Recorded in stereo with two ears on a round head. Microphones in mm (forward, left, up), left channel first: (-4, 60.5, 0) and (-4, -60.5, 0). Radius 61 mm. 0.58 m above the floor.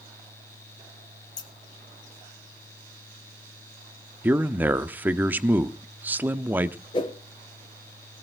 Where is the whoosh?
35° left (ahead or behind), 3 m.